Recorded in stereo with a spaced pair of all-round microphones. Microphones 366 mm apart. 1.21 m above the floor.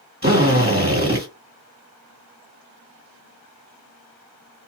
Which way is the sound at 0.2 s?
25° right (ahead or behind).